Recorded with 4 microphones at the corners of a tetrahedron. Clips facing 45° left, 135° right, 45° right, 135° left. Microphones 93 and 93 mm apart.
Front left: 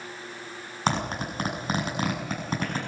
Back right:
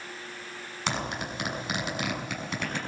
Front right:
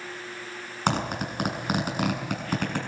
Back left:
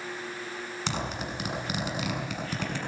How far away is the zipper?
About 6.5 m.